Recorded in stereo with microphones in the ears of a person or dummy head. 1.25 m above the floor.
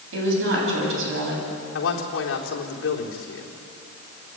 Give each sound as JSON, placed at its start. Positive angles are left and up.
{"t": 0.1, "sound": "a woman speaking", "side_deg": -85, "distance_m": 8.5}
{"t": 1.8, "sound": "a man speaking", "side_deg": 80, "distance_m": 3.5}